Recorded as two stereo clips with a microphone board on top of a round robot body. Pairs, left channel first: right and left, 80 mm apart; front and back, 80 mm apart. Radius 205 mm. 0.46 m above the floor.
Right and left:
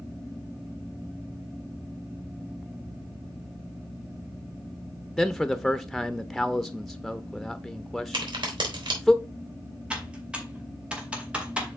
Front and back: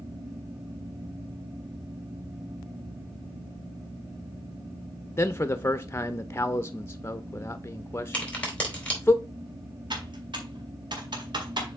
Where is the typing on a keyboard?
165° left, 2.5 m.